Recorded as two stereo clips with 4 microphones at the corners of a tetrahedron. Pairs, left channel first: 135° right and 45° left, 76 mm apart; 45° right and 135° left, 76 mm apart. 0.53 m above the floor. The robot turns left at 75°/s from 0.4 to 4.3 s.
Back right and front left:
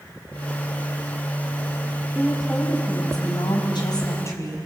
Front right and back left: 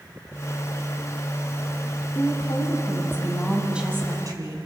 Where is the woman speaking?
25° right, 4.5 m; by 4.6 s 175° left, 4.5 m.